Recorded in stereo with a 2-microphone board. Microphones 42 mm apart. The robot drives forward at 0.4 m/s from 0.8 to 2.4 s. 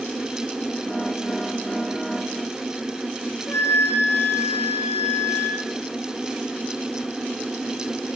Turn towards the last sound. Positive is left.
turn(degrees=70)  # may be behind; listen again after turning